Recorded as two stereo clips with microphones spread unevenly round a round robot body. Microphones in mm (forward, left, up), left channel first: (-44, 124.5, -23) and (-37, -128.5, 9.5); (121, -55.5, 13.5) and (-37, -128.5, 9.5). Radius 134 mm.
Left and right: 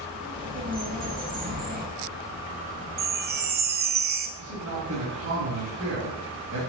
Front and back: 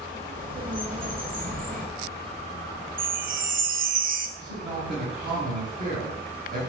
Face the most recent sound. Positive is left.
turn(degrees=-130)